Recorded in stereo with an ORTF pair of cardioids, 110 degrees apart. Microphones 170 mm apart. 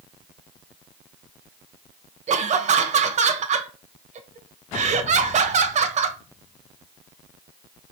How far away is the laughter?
About 1.0 m.